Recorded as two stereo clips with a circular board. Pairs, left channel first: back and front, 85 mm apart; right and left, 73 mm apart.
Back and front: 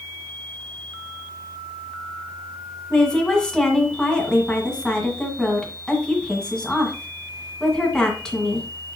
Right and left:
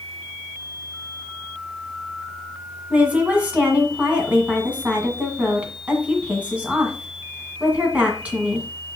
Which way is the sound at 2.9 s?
115° left.